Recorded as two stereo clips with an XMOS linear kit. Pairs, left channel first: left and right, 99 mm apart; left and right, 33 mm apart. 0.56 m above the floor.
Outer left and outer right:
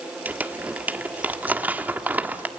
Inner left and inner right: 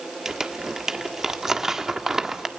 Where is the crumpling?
15° right (ahead or behind), 1.5 m.